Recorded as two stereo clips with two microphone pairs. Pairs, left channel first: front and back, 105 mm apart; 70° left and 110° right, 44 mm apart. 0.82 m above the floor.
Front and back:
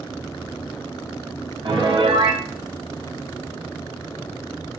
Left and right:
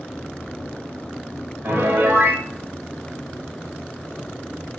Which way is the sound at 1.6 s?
145° right.